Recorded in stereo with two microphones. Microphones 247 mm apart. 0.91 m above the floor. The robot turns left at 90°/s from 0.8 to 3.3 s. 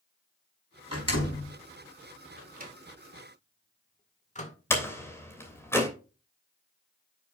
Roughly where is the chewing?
I don't hear chewing.